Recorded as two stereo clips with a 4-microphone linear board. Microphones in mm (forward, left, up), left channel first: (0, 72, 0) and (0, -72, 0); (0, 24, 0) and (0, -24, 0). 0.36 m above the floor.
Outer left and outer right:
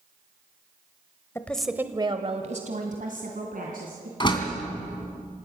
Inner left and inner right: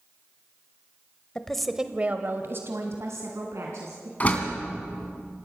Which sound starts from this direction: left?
A door slam, at 4.2 s.